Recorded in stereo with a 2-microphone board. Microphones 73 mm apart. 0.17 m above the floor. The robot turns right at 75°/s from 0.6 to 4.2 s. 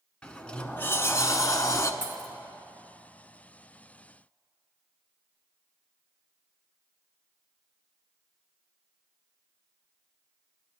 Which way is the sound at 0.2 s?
20° left.